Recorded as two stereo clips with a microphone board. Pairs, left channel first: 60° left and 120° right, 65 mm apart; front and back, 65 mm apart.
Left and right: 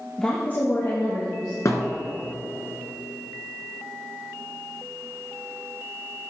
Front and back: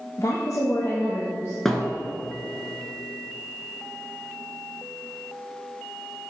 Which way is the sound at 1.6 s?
85° left.